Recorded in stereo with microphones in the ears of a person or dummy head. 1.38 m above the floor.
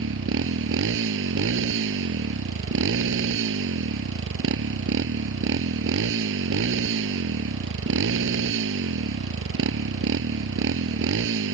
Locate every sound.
0.0 s a motorcycle: 70° right (ahead or behind)